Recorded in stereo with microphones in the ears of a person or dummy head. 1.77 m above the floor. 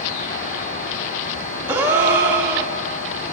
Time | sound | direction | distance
1.7 | a gasp | 15° right (ahead or behind) | 1.6 m